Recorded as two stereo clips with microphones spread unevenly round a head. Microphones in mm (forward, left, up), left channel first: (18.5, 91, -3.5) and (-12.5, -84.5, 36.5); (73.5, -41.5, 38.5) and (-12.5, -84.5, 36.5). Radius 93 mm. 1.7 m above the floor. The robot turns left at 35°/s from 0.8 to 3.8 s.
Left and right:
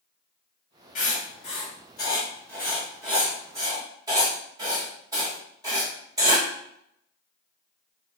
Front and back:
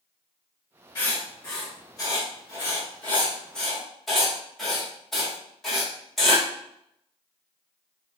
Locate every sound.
0.9 s writing: 40° left, 1.4 m; by 6.5 s 60° right, 1.4 m